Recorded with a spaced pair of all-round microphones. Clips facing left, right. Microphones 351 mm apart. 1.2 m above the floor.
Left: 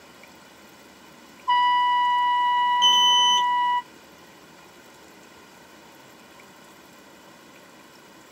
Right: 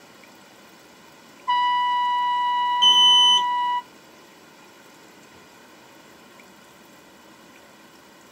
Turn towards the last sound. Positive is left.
turn(degrees=-45)  # may be behind; listen again after turning